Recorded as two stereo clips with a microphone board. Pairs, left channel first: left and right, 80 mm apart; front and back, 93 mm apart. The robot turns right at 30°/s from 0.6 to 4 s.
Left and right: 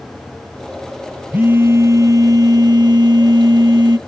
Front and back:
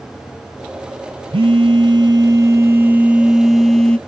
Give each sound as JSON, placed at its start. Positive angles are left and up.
{"t": 1.3, "sound": "a phone buzzing", "azimuth_deg": -160, "distance_m": 0.7}